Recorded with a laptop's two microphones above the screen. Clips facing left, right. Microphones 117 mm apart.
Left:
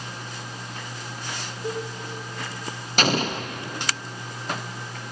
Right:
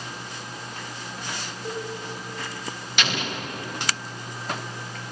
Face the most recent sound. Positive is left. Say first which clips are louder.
# left 6 dB
turn(degrees=40)  # may be behind; listen again after turning